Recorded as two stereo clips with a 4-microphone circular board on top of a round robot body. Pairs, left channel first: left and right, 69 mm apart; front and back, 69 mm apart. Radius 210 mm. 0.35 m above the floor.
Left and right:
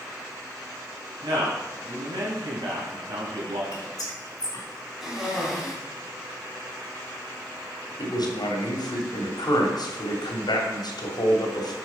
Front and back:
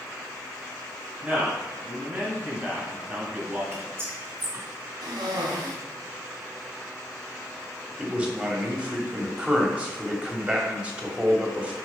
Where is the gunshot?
I don't hear a gunshot.